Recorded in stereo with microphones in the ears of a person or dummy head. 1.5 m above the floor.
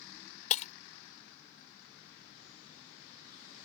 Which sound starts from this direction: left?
Breaking glass, at 0.5 s.